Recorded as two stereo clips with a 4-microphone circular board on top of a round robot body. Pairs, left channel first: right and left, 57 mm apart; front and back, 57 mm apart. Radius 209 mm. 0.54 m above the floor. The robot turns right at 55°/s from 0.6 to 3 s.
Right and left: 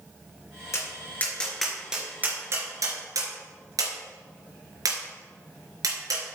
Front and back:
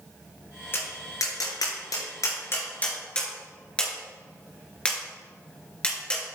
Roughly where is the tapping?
Ahead right.